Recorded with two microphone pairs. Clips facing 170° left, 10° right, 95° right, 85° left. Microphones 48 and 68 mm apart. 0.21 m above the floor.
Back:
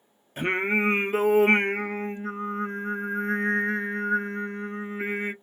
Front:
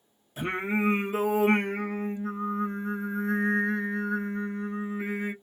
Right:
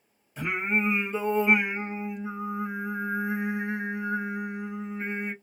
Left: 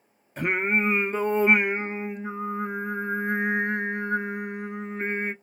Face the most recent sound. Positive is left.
turn(degrees=125)